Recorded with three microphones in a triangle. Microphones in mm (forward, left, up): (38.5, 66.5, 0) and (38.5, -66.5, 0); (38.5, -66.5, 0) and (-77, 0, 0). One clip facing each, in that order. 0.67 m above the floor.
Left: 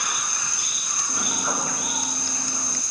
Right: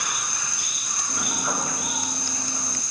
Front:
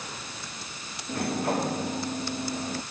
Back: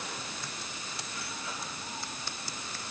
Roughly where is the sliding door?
Ahead.